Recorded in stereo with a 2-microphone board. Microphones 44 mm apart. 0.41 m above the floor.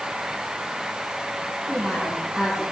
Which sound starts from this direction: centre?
A woman speaking, at 1.7 s.